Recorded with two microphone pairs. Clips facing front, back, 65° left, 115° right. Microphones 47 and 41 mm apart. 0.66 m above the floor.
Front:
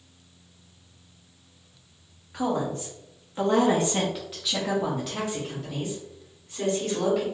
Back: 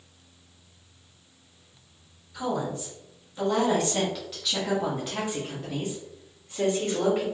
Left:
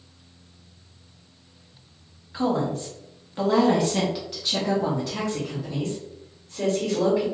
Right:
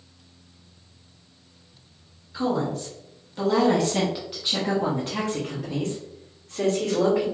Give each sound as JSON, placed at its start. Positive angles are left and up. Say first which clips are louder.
{"t": 2.3, "sound": "a woman speaking", "louder": "front 2 dB, left 1 dB", "azimuth_deg": 25, "distance_m": 1.3}